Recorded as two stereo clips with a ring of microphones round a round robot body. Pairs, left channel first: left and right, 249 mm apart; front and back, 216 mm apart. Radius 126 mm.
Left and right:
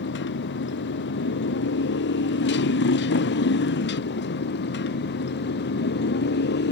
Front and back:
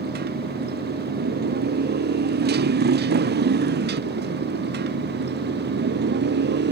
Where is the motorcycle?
135° left; by 6.7 s 140° left.